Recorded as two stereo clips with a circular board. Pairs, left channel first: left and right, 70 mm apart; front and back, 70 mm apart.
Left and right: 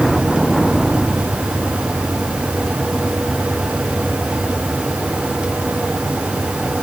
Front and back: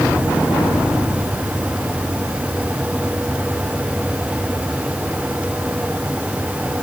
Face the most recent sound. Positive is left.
No sound to turn to.